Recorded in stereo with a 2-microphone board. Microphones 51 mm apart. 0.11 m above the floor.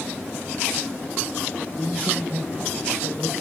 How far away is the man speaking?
About 5.5 m.